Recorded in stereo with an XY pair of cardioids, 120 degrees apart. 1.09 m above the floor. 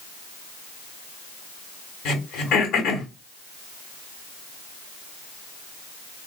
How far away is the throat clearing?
About 1.8 m.